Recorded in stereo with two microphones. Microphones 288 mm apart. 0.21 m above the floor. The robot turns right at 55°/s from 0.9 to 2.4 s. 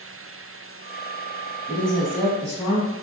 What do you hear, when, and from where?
1.7 s a woman speaking: 10° left (ahead or behind), 1.1 m; by 2.9 s 10° right (ahead or behind), 1.1 m